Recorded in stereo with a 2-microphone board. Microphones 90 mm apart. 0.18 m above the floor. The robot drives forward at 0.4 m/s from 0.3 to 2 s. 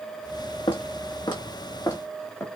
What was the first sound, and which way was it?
Footsteps, 75° left (ahead or behind).